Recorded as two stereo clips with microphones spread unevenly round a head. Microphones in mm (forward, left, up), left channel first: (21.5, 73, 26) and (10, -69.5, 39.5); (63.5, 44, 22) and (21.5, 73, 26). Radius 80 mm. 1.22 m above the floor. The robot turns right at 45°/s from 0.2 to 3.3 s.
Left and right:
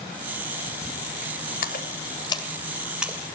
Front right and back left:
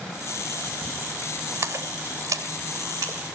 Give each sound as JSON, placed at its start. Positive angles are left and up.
{"t": 1.6, "sound": "a splash", "azimuth_deg": 120, "distance_m": 2.5}